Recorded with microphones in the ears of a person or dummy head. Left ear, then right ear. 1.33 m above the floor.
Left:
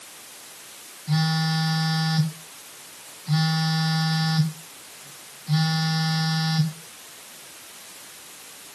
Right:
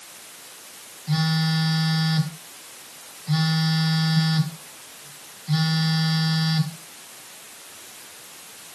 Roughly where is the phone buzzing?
Centre.